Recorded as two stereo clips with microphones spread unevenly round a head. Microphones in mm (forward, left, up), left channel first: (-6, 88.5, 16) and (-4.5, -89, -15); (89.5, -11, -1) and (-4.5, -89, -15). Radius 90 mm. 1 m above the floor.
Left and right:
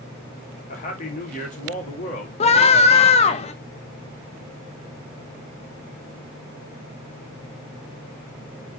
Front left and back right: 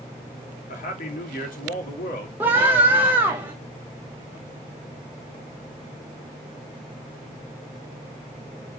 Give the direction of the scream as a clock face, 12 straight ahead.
7 o'clock.